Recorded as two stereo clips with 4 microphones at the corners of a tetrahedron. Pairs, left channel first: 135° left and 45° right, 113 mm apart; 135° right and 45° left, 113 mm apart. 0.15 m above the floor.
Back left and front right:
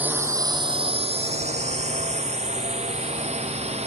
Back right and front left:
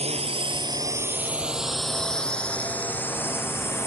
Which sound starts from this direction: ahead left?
A drone, at 0.0 s.